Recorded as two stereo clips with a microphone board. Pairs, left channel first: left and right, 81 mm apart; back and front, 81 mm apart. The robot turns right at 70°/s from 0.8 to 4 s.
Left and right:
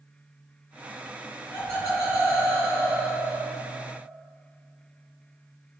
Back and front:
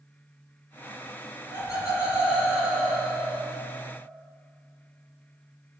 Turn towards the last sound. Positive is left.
turn(degrees=-30)